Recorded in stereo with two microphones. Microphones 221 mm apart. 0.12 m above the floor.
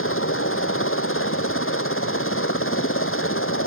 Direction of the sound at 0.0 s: 70° left (ahead or behind).